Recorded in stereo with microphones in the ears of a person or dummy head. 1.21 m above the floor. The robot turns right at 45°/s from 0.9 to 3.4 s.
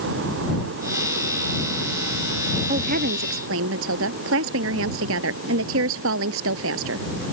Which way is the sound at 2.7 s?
140° right.